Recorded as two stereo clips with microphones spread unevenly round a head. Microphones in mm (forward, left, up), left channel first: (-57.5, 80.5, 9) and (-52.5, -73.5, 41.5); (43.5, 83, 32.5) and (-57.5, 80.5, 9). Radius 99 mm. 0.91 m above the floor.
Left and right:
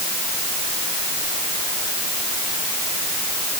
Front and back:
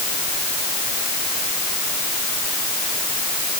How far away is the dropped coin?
I don't hear a dropped coin.